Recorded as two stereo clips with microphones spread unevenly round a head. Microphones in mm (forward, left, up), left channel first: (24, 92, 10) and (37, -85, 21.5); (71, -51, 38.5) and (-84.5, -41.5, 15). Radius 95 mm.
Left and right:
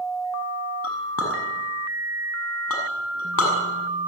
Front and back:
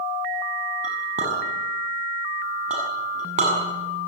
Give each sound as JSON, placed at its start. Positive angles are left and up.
{"t": 0.8, "sound": "a clink", "azimuth_deg": 120, "distance_m": 7.0}